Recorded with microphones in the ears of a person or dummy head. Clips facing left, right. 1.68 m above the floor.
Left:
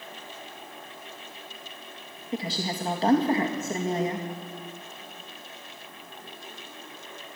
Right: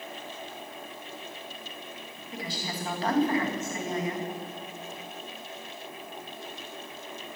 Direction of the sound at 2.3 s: 20° left (ahead or behind).